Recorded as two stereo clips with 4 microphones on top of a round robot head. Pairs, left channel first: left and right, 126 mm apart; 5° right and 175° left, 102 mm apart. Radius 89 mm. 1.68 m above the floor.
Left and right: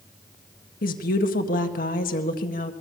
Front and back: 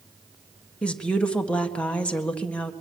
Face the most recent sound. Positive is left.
turn(degrees=75)